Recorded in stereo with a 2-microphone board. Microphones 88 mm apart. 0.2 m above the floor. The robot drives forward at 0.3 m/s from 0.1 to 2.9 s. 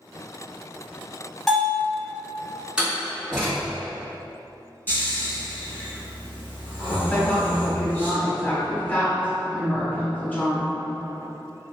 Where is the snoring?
20° left (ahead or behind), 1.4 m.